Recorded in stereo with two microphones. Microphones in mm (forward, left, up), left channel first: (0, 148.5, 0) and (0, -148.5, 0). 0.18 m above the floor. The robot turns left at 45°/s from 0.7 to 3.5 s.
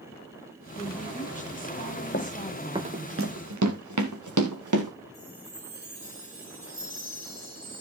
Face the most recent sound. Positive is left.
turn(degrees=-60)  # may be behind; listen again after turning